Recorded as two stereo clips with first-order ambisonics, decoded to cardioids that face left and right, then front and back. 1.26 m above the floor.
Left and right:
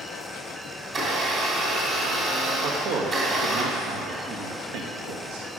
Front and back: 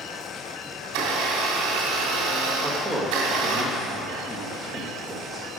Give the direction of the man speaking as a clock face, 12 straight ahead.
3 o'clock.